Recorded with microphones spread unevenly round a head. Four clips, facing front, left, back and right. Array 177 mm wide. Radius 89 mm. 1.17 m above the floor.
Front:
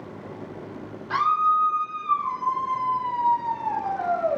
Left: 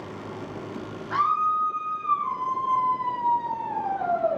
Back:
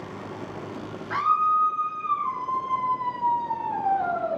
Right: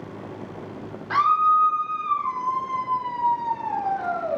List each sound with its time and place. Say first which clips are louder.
1.1 s a scream: right 5 dB, front 1 dB; 65° right, 3.5 m; by 4.4 s 35° right, 4.5 m